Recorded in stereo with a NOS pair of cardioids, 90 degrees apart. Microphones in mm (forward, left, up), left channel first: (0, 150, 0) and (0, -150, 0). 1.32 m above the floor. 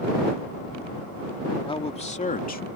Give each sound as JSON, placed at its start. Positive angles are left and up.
{"t": 1.7, "sound": "a man speaking", "azimuth_deg": 15}